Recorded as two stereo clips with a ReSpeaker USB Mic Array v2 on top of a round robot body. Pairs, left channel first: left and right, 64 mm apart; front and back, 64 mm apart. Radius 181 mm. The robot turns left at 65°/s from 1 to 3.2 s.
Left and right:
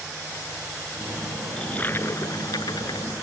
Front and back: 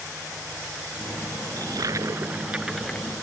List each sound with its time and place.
1.6 s a toilet flushing: 170° left; by 3.1 s 70° left